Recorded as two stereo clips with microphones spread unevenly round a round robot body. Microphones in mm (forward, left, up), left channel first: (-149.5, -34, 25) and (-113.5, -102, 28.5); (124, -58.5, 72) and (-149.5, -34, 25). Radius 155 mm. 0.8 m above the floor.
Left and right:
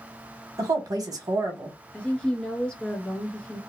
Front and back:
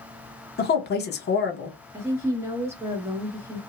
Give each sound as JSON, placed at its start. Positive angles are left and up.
{"t": 0.6, "sound": "a woman speaking", "azimuth_deg": -55, "distance_m": 1.0}
{"t": 1.9, "sound": "a woman speaking", "azimuth_deg": 155, "distance_m": 0.8}